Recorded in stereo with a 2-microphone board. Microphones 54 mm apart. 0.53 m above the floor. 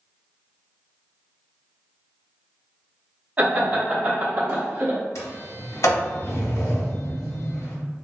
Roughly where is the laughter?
Right.